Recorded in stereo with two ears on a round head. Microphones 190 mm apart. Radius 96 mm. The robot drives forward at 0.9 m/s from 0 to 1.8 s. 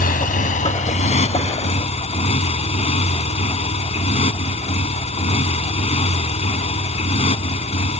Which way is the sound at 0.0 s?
45° left (ahead or behind).